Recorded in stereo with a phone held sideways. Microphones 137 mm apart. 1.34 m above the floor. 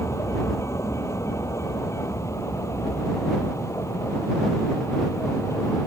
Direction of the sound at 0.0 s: 20° left (ahead or behind).